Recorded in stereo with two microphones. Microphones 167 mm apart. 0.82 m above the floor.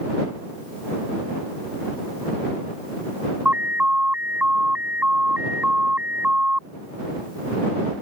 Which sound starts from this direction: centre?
An alarm, at 3.5 s.